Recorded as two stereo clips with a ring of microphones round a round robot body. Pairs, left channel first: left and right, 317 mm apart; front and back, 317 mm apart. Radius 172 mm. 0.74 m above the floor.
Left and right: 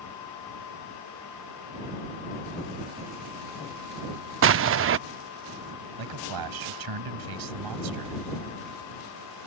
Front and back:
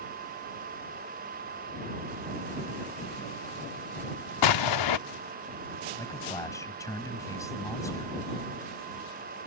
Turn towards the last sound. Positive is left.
turn(degrees=-80)